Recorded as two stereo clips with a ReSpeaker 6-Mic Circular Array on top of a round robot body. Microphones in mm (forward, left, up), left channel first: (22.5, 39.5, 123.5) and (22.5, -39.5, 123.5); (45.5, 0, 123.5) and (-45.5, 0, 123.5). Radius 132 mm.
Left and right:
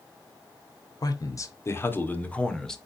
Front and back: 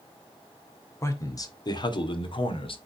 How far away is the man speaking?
About 1.7 m.